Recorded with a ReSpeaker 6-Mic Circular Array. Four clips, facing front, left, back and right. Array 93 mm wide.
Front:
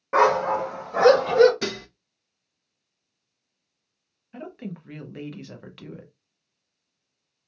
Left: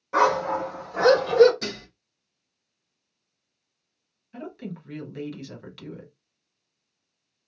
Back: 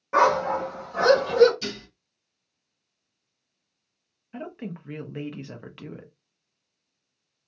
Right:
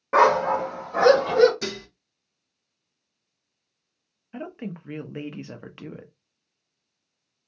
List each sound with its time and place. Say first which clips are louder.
0.1 s a dog barking: right 3 dB, front 1 dB; 65° right, 0.7 m; by 1.5 s 30° right, 1.4 m
1.6 s dishes clattering: right 2 dB, front 5 dB; 5° right, 0.6 m
4.3 s a woman speaking: right 2 dB, back 1 dB; 110° right, 0.6 m